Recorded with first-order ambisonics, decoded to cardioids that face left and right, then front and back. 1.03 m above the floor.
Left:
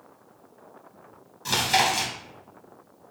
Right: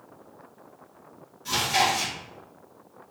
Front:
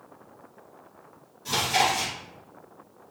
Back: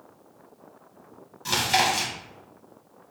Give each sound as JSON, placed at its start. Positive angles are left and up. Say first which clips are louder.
{"t": 1.4, "sound": "chewing", "louder": "left 1 dB, back 1 dB", "azimuth_deg": 140, "distance_m": 1.0}